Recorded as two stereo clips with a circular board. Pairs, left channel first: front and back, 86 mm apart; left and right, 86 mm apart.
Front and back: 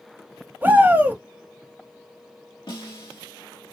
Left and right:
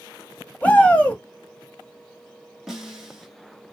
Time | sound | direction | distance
0.6 | a shout | 145° left | 1.0 m
2.7 | a snare drum | 5° right | 1.4 m